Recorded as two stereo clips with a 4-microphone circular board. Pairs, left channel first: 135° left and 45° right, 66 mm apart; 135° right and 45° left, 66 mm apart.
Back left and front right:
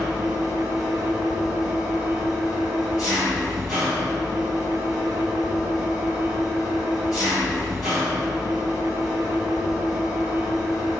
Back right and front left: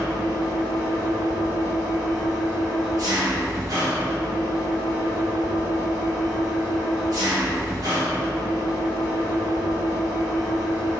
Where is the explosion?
No explosion in this recording.